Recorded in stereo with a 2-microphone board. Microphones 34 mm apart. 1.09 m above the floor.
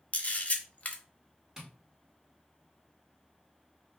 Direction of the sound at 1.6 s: 10° right (ahead or behind).